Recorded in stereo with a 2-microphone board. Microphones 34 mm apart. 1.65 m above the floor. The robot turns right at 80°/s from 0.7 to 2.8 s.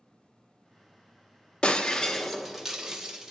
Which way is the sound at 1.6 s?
25° left (ahead or behind).